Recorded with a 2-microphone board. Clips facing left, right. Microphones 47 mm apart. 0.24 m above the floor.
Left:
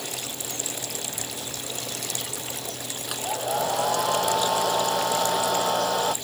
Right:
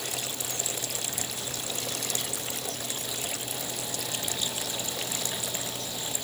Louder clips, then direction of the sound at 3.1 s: Left 8 dB; 65° left (ahead or behind).